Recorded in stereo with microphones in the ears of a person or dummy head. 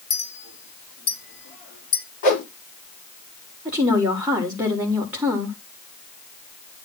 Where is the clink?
40° left (ahead or behind), 3 m.